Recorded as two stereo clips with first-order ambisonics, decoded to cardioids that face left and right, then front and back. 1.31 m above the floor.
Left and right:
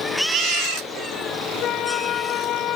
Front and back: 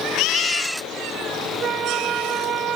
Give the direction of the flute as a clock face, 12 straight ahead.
8 o'clock.